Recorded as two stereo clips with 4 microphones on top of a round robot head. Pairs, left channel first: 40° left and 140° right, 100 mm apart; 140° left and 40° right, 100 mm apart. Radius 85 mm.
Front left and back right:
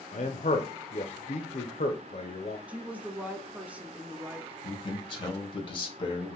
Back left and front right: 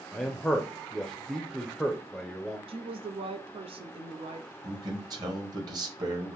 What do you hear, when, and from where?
0.1 s a man speaking: 55° left, 0.5 m
2.7 s a woman speaking: 60° right, 0.6 m
4.6 s a man speaking: 5° left, 1.4 m